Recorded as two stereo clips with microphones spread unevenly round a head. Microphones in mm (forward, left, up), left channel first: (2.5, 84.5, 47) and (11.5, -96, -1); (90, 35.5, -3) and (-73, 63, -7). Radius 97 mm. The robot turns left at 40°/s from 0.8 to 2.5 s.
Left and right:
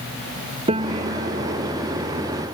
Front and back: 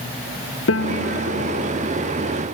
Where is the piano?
25° right; by 1.7 s 60° right.